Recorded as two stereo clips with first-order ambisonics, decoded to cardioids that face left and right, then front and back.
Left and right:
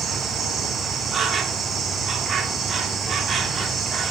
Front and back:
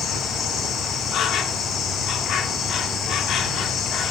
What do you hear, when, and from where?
0.0 s an insect: 35° right, 1.2 m